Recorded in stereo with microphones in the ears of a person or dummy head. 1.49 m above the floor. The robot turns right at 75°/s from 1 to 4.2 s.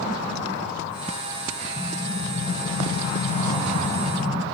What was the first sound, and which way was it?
An explosion, 10° right.